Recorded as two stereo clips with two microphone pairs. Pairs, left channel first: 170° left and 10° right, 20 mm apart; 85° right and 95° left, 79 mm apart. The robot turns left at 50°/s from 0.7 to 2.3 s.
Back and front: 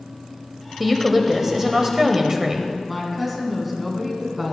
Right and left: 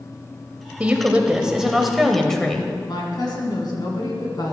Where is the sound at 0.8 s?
65° left, 1.0 m; by 2.7 s 10° right, 1.0 m.